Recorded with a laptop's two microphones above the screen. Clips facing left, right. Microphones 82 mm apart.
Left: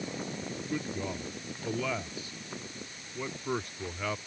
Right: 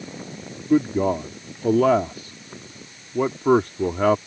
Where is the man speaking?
65° right (ahead or behind).